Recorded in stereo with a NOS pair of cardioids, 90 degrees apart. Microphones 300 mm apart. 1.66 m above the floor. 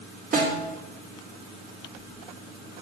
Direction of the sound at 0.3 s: 30° right.